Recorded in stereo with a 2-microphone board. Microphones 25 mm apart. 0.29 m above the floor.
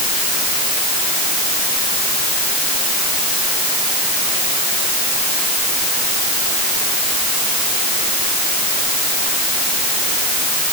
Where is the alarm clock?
No alarm clock in this recording.